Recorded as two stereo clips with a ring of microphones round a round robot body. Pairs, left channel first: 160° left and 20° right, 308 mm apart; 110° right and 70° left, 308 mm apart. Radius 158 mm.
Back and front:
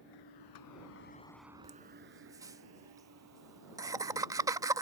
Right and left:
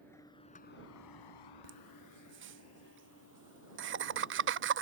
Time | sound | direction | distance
0.0 | a vehicle | 165° left | ?
1.6 | laughter | 50° left | ?